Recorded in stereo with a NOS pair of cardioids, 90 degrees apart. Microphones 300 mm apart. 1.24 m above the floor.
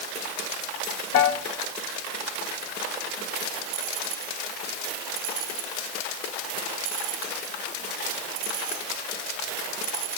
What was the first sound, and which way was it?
A piano, 50° left.